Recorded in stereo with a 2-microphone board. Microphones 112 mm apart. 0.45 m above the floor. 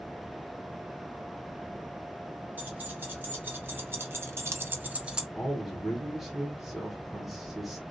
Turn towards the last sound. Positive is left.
turn(degrees=0)  # may be behind; listen again after turning